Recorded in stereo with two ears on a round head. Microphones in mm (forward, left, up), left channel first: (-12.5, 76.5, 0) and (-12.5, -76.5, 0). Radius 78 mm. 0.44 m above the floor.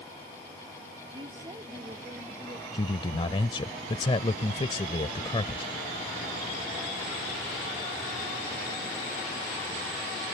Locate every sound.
1.1 s a woman speaking: 30° right (ahead or behind); by 2.6 s 20° right (ahead or behind)
2.7 s a man speaking: 30° left (ahead or behind)